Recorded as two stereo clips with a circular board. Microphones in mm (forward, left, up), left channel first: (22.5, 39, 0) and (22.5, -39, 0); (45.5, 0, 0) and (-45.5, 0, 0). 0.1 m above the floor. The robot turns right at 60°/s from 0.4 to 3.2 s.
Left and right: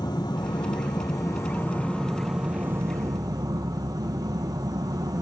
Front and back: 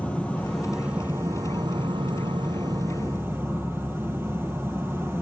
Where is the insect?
75° left, 1.6 m; by 5.2 s 120° right, 1.6 m.